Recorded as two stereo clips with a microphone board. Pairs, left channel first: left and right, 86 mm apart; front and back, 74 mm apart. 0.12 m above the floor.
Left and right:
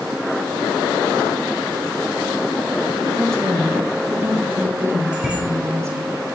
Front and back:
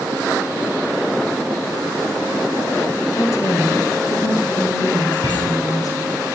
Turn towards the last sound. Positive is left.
turn(degrees=-10)